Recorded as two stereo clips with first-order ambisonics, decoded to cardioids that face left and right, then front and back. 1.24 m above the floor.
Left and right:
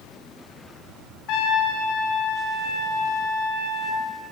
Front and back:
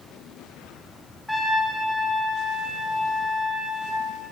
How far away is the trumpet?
About 0.5 m.